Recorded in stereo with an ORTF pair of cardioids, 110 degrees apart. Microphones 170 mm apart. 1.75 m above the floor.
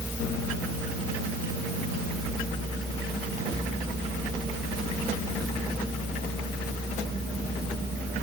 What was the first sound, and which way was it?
Only background noise.